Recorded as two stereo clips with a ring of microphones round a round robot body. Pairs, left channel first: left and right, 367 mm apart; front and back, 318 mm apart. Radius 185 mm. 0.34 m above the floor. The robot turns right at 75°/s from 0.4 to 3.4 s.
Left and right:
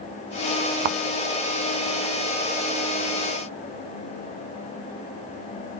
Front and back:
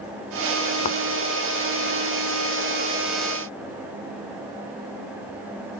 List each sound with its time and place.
0.8 s a thud: 70° right; by 1.0 s 60° right